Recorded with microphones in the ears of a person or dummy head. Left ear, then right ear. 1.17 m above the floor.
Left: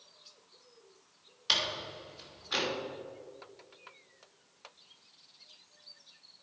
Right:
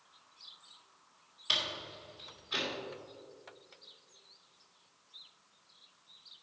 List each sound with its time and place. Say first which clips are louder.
1.5 s a door slam: left 2 dB; 15° left (ahead or behind), 2.5 m